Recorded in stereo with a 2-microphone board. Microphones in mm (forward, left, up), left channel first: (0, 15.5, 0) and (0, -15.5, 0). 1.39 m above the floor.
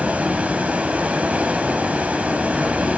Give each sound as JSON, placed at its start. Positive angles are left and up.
{"t": 0.0, "sound": "running water", "side_deg": -50, "distance_m": 1.7}